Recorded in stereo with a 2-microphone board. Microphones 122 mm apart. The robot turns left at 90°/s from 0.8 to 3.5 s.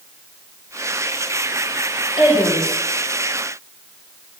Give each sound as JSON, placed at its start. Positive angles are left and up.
{"t": 2.2, "sound": "a woman speaking", "azimuth_deg": 50, "distance_m": 2.0}